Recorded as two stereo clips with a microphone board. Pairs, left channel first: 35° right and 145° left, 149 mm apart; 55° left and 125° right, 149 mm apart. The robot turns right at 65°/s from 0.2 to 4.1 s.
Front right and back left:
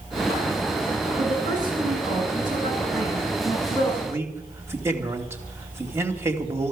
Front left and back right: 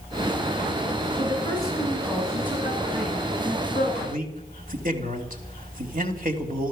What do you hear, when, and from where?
1.2 s a woman speaking: 95° left, 9.5 m; by 3.9 s 90° right, 9.5 m
4.0 s a man speaking: 150° right, 2.5 m; by 6.7 s 140° right, 2.5 m